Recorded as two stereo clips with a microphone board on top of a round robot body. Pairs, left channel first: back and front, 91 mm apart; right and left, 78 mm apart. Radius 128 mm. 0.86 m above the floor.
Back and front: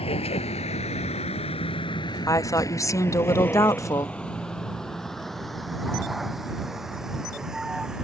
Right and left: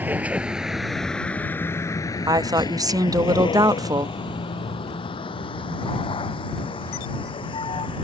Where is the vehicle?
160° left; by 8.0 s 85° right.